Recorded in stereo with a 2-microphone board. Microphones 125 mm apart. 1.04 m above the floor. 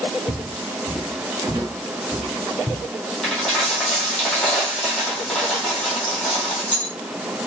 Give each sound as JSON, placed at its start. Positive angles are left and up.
{"t": 0.3, "sound": "footsteps", "side_deg": 0, "distance_m": 1.1}
{"t": 3.2, "sound": "a dropped coin", "side_deg": 10, "distance_m": 2.5}